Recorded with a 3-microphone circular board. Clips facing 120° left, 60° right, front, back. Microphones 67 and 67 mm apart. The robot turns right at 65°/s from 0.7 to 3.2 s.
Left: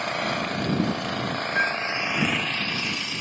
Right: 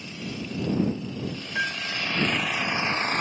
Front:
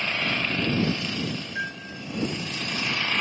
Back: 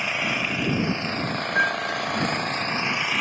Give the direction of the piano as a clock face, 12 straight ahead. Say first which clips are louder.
Left 3 dB, back 10 dB; 6 o'clock.